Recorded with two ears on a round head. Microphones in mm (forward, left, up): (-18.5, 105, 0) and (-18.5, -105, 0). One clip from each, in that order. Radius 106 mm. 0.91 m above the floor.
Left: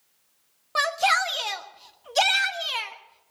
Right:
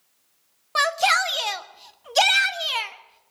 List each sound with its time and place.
0.8 s a shout: 10° right (ahead or behind), 1.0 m